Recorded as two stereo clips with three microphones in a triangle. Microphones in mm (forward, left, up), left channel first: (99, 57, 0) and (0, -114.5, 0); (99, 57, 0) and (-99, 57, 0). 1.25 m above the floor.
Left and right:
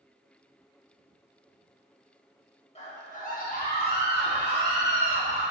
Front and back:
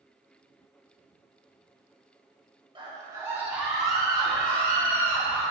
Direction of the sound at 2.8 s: 115° left.